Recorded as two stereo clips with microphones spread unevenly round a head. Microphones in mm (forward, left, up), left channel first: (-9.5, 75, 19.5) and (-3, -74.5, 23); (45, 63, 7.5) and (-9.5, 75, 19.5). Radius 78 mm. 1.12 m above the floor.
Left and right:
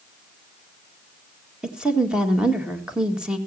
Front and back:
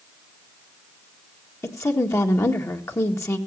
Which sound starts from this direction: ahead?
A woman speaking, at 1.6 s.